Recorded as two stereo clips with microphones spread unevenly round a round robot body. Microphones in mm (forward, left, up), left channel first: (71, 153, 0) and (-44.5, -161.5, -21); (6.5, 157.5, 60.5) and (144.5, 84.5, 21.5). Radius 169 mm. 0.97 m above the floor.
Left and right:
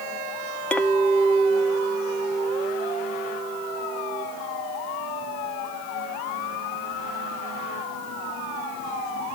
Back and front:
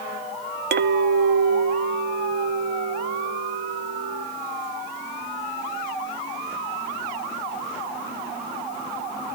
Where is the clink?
15° right, 0.6 m.